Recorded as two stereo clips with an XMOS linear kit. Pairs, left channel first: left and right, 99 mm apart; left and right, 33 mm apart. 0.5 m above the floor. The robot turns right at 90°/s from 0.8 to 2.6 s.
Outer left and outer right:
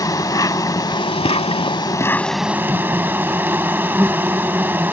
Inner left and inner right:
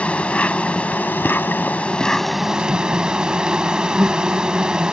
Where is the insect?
40° left; by 4.9 s 160° right.